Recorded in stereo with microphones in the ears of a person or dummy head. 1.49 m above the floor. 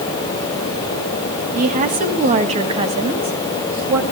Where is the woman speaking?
45° right (ahead or behind), 2.5 m; by 4.0 s 15° right (ahead or behind), 2 m.